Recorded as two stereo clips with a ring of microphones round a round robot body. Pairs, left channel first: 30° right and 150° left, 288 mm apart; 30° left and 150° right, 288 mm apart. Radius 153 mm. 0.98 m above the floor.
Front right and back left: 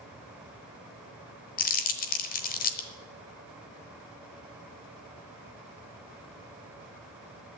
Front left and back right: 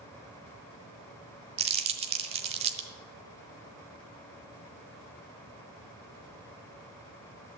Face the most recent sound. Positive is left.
turn(degrees=-85)